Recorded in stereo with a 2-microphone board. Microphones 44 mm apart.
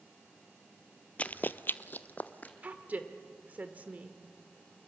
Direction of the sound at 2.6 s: 35° right (ahead or behind).